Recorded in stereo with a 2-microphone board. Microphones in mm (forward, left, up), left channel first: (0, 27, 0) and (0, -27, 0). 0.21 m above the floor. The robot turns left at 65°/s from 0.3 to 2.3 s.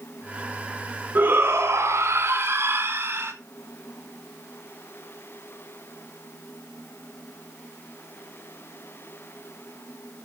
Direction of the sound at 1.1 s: 40° right.